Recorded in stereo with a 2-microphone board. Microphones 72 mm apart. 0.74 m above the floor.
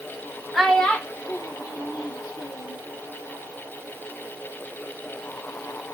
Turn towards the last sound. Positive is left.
turn(degrees=75)  # may be behind; listen again after turning